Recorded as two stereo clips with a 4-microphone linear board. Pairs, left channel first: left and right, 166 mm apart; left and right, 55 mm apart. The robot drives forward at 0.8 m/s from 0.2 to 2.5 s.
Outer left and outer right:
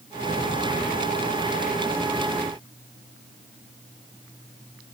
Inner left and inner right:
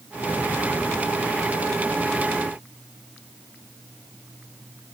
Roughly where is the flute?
No flute in this recording.